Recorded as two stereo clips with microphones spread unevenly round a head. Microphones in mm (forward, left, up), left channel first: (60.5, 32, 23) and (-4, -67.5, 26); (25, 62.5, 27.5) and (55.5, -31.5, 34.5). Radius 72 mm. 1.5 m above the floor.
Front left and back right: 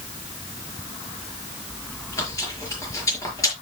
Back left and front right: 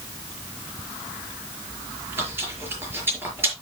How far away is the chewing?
About 5 m.